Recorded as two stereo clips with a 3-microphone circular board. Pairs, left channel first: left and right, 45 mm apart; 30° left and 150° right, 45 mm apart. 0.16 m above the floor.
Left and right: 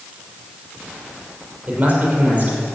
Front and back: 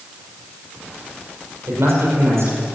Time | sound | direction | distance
1.7 | a man speaking | 150° right | 5.5 m